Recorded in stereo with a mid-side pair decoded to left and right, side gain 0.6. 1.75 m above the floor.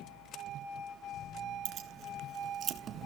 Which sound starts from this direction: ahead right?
Keys jangling, at 1.6 s.